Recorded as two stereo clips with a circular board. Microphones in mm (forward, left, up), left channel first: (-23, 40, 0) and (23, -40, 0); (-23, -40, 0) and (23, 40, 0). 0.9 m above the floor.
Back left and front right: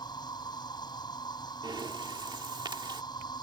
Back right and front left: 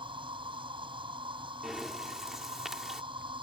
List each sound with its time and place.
0.0 s an insect: 80° left
1.6 s breathing: 25° right